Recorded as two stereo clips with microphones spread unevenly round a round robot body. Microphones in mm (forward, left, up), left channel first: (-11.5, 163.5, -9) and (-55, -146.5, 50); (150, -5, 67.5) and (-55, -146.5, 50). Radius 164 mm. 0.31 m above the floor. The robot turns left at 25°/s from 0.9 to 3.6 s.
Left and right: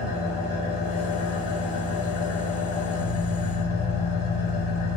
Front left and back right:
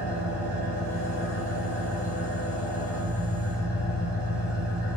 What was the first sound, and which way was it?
An engine running, 145° left.